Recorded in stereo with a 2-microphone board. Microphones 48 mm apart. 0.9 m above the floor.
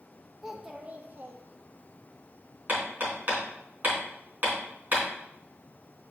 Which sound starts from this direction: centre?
A child speaking, at 0.4 s.